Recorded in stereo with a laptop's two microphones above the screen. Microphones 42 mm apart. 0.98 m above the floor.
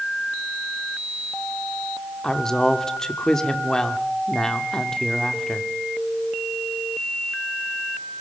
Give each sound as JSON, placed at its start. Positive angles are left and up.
{"t": 2.2, "sound": "a woman speaking", "side_deg": 15, "distance_m": 2.5}